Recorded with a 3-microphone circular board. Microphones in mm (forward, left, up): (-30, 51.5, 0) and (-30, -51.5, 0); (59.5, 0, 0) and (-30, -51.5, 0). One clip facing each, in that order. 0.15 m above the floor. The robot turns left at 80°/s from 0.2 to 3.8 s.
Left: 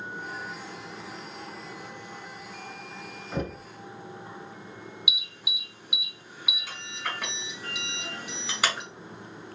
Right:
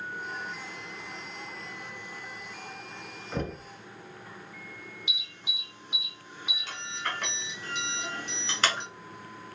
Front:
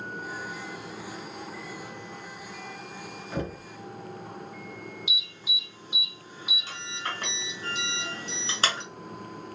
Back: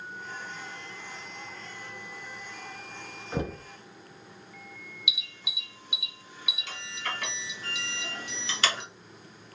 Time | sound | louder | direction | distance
3.3 | knocking | left 1 dB, back 1 dB | 170° left | 0.8 m
5.1 | an alarm | left 3 dB, front 3 dB | 15° left | 1.4 m